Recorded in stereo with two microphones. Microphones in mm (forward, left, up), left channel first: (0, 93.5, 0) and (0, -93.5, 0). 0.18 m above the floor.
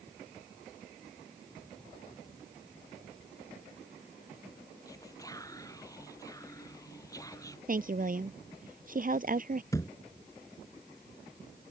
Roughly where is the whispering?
Centre.